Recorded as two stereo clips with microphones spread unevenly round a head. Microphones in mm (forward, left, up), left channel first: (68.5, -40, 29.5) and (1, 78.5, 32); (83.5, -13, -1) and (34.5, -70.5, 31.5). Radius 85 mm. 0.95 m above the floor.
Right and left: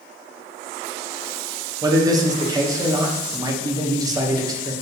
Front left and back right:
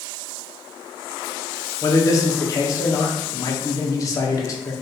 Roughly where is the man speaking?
Ahead left.